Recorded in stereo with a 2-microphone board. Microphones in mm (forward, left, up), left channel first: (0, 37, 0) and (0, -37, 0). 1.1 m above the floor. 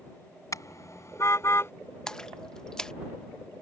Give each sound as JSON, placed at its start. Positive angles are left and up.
{"t": 0.5, "sound": "a car horn", "side_deg": 45}
{"t": 2.1, "sound": "a splash", "side_deg": 10}